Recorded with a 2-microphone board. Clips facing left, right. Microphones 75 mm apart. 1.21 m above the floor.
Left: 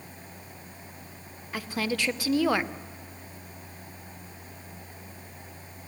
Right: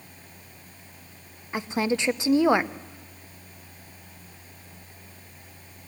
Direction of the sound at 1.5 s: 25° right (ahead or behind).